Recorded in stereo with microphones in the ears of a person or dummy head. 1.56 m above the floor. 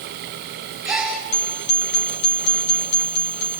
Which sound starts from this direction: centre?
A gasp, at 0.8 s.